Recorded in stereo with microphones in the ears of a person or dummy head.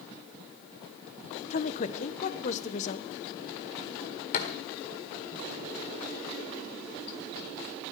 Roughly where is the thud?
Left.